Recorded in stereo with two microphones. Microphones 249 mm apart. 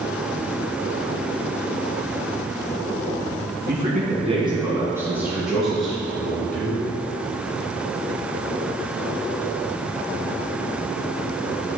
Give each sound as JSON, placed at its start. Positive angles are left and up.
{"t": 3.7, "sound": "a man speaking", "side_deg": -40, "distance_m": 2.5}